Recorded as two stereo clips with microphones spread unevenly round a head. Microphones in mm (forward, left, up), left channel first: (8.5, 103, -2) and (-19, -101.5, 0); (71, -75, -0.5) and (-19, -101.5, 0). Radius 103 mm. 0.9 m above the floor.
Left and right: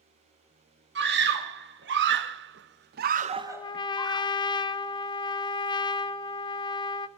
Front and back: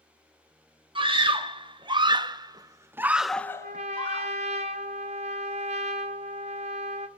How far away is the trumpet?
About 0.6 m.